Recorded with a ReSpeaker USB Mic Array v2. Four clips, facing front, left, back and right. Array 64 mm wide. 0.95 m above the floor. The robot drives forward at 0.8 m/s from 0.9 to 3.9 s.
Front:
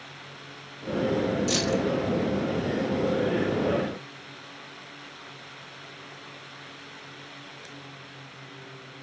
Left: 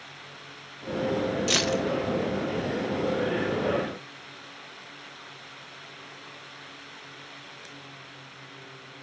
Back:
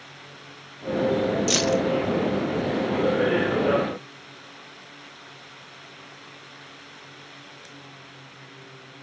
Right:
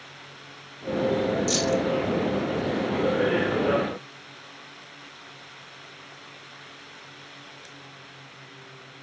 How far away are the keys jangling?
About 0.6 m.